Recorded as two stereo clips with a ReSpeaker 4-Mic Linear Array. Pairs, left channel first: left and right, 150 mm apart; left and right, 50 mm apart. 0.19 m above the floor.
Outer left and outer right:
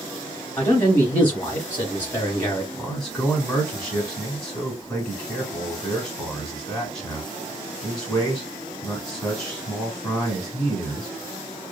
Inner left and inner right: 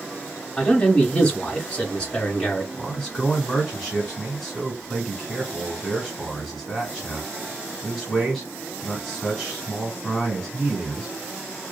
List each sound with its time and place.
0.6 s a man speaking: 10° left (ahead or behind), 1.0 m
2.7 s a man speaking: 5° left (ahead or behind), 1.2 m